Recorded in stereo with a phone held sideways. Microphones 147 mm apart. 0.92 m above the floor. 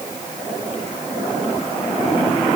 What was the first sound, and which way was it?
Only background noise.